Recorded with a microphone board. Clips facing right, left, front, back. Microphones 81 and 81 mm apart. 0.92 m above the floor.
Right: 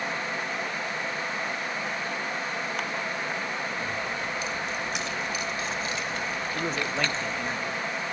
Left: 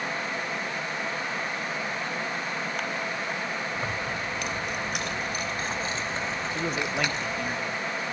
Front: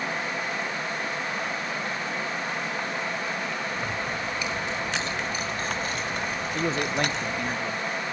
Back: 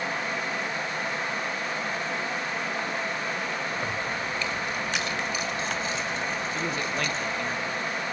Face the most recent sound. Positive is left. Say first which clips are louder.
# even, front 3 dB
turn(degrees=5)